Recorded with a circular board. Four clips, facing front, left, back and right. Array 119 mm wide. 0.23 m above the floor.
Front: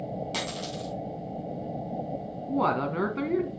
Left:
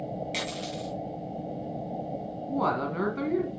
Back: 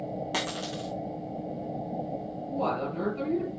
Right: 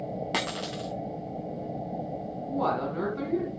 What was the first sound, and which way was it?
A dropped coin, 110° right.